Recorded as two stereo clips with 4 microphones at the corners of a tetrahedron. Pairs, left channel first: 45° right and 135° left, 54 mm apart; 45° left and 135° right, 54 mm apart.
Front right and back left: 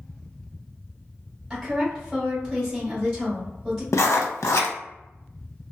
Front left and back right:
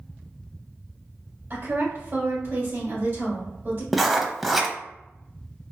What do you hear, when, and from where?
1.5 s a woman speaking: 125° right, 1.9 m
3.9 s writing: 45° right, 0.5 m